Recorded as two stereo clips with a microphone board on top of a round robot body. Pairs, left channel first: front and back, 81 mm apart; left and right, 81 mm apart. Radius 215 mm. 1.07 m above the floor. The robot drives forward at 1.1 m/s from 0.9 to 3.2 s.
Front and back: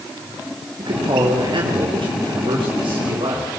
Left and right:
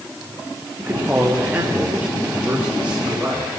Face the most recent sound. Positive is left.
turn(degrees=-165)